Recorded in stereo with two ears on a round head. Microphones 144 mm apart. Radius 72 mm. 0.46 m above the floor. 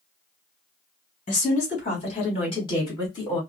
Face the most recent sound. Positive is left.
turn(degrees=20)  # may be behind; listen again after turning